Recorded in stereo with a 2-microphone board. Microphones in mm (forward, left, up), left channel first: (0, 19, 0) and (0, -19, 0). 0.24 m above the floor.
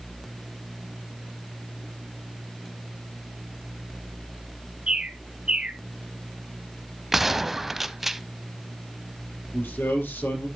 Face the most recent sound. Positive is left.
turn(degrees=80)